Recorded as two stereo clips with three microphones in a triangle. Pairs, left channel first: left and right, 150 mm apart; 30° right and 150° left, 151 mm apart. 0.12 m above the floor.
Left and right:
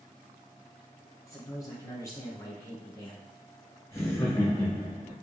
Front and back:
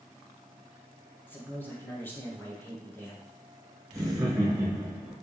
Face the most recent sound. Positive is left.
turn(degrees=120)